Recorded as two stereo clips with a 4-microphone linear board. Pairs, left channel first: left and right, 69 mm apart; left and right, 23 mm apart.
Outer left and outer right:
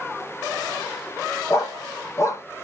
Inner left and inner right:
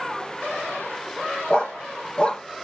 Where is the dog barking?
40° left (ahead or behind), 1.0 m.